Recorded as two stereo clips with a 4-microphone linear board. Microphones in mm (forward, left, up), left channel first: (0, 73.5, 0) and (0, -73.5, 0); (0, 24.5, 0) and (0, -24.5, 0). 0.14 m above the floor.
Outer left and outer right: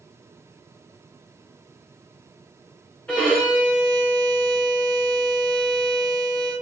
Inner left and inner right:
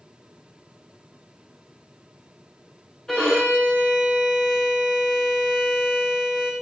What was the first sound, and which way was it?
A violin, 10° left (ahead or behind).